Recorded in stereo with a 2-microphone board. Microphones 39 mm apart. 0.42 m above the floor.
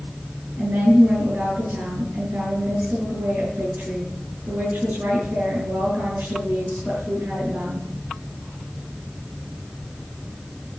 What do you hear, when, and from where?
0.6 s a woman speaking: 60° right (ahead or behind), 3.5 m